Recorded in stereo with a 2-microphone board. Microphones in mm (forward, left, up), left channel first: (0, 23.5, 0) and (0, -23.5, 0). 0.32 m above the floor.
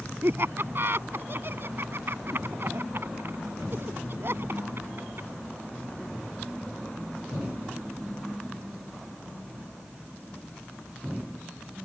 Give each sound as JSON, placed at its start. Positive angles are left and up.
{"t": 0.2, "sound": "laughter", "side_deg": -55}